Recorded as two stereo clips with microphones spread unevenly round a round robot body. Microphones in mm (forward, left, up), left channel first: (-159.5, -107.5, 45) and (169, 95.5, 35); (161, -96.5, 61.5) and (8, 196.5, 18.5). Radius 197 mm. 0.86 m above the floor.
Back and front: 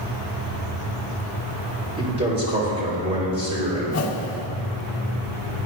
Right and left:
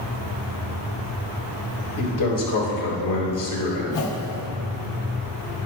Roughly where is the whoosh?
Right.